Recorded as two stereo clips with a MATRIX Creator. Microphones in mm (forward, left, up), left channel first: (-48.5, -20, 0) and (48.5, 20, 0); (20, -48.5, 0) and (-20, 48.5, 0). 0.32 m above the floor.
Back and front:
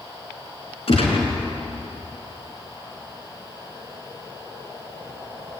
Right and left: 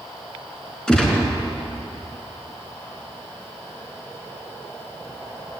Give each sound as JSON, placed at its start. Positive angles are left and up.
{"t": 0.9, "sound": "a gunshot", "azimuth_deg": -150, "distance_m": 4.5}